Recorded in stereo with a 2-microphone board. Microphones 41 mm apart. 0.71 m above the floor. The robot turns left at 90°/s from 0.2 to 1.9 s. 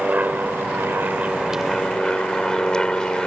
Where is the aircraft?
40° right (ahead or behind); by 3.3 s 15° left (ahead or behind).